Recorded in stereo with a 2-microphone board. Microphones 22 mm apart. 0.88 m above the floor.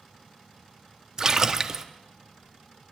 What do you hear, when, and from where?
1.2 s a splash: 25° right (ahead or behind), 0.6 m